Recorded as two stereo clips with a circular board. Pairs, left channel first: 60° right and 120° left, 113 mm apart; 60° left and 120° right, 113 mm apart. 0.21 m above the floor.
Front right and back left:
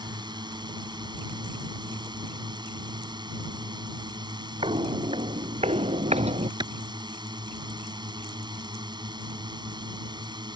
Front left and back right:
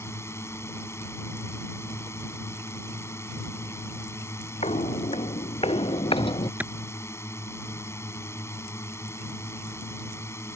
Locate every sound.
0.0 s a drone: 115° left
4.6 s footsteps: 80° left; by 6.5 s 100° left
6.6 s a clap: 165° left